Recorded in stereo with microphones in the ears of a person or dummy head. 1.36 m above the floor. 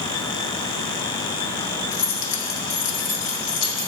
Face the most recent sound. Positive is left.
turn(degrees=75)  # may be behind; listen again after turning